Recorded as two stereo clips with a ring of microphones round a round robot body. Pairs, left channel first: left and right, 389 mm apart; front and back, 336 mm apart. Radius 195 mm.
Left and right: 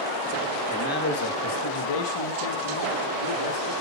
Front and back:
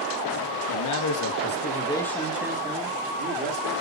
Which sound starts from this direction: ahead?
A man speaking, at 0.7 s.